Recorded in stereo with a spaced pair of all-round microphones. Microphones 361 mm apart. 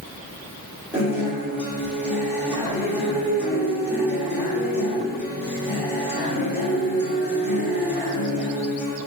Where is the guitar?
5° right (ahead or behind), 3 m.